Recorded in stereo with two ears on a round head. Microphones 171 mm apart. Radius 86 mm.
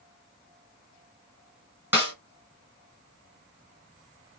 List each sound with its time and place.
1.9 s a snare drum: 15° right (ahead or behind), 2.5 m